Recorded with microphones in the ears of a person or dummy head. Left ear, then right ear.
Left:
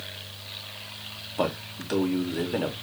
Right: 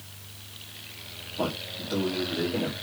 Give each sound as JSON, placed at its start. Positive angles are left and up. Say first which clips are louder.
{"t": 1.4, "sound": "a man speaking", "louder": "left 2 dB", "side_deg": 35, "distance_m": 0.5}